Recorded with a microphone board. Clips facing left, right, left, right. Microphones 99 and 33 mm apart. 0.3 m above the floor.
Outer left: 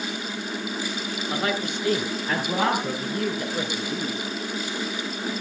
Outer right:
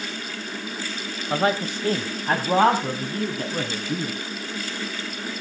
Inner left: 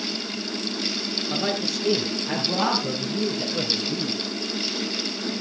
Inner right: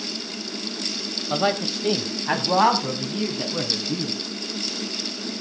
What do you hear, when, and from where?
1.3 s a man speaking: 35° right (ahead or behind), 1.1 m; by 4.2 s 60° right (ahead or behind), 2.5 m